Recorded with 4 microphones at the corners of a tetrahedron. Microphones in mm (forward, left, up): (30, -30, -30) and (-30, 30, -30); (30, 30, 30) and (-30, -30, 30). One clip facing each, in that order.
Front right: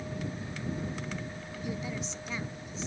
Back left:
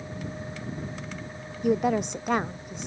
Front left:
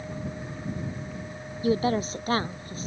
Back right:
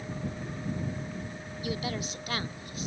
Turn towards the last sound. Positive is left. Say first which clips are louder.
# back left 14 dB, front left 10 dB
turn(degrees=100)